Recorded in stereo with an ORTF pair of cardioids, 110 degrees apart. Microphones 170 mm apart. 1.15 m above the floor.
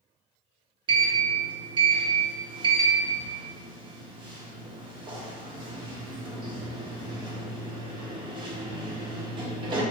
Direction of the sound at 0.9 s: 30° right.